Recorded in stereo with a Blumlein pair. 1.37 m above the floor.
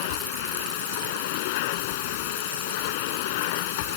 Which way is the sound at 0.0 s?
50° left.